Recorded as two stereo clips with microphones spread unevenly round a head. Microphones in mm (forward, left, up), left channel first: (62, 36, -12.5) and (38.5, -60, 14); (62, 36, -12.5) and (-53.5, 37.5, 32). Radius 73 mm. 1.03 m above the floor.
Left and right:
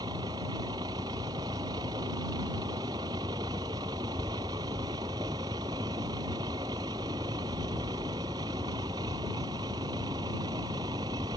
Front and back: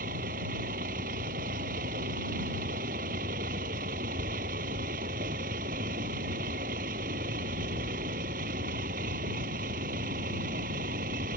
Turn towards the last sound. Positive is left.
turn(degrees=-170)